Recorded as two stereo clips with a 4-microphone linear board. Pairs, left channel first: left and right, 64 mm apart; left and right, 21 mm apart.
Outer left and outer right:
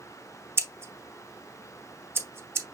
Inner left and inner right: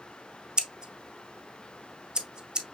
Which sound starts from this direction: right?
Scissors, at 0.6 s.